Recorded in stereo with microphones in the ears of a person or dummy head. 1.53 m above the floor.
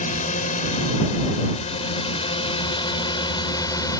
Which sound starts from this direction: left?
A drone, at 0.0 s.